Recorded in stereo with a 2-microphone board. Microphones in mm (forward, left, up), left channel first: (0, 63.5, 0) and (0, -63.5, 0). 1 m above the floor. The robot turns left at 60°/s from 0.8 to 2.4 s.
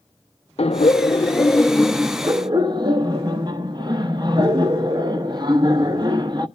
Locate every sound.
0.6 s laughter: 60° left, 1.0 m; by 6.5 s 40° right, 1.0 m